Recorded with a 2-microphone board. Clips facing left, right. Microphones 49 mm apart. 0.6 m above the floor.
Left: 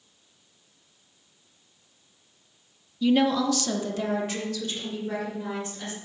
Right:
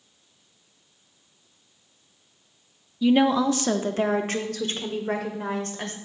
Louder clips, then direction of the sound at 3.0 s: Right 2 dB; 5° right (ahead or behind).